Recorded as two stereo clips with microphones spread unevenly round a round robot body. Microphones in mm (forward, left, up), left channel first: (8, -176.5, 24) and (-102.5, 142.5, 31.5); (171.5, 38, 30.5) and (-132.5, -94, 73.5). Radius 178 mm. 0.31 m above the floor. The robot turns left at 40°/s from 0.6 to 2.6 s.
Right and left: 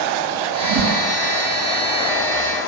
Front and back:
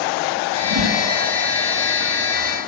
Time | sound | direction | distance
0.6 | a whoosh | 125° left | 4.5 m